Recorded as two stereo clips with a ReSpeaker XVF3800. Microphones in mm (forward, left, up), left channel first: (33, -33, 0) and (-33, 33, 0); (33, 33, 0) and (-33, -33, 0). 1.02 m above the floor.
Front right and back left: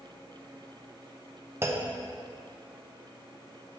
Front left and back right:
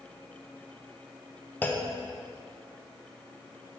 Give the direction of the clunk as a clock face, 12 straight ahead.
9 o'clock.